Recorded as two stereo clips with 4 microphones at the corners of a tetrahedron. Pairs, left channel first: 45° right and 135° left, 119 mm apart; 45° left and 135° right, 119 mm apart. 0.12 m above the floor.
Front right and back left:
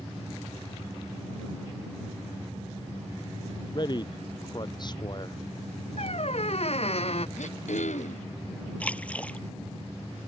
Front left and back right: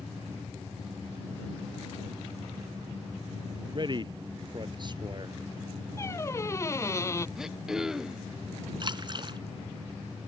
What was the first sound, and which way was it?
A man speaking, 90° right.